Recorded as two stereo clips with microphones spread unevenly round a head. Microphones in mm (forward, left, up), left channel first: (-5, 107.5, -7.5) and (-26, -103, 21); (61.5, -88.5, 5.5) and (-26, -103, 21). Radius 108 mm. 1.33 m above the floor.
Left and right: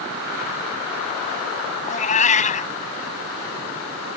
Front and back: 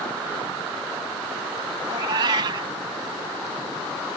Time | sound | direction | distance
1.9 | a cat meowing | 140° left | ?